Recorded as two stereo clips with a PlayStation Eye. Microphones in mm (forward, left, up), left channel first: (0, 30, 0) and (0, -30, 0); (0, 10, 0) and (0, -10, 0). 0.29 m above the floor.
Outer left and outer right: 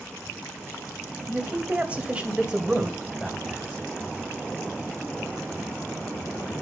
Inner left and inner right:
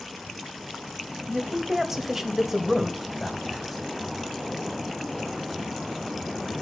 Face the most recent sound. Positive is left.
turn(degrees=0)  # may be behind; listen again after turning